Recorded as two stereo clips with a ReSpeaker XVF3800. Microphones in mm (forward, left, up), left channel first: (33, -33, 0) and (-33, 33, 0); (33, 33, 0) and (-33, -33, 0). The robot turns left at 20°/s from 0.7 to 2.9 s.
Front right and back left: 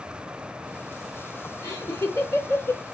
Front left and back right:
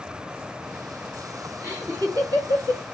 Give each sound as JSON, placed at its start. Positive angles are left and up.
{"t": 1.6, "sound": "laughter", "azimuth_deg": -85, "distance_m": 1.6}